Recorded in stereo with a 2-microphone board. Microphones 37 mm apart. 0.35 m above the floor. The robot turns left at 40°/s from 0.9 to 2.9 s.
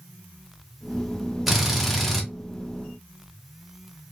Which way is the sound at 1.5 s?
5° right (ahead or behind).